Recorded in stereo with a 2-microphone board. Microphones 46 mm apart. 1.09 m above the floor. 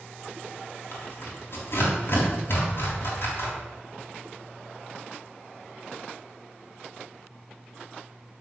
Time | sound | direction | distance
0.9 | tearing paper | 55° left (ahead or behind) | 3.5 m